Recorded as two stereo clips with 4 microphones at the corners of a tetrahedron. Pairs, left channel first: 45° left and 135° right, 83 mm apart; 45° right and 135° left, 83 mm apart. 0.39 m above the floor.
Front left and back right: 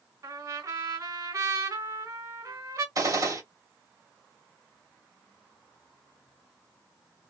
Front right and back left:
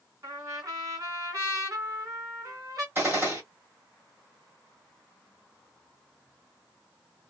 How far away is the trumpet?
About 1.9 m.